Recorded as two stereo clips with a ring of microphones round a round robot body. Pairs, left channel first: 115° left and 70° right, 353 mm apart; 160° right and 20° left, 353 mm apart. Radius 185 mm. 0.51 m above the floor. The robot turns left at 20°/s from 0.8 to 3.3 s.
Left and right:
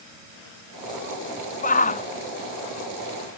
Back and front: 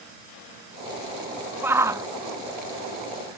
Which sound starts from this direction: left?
A shout, at 1.6 s.